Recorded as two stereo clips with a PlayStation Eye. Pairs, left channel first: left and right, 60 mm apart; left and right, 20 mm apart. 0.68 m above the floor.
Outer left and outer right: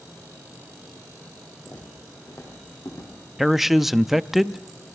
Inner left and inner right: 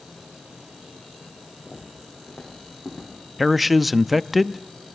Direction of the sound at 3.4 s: 5° right (ahead or behind).